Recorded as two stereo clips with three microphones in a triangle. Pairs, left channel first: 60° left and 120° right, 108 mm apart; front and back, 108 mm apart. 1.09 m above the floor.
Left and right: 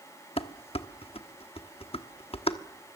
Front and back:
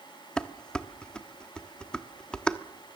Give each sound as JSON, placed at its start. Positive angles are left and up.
{"t": 0.4, "sound": "dishes clattering", "azimuth_deg": 85, "distance_m": 1.1}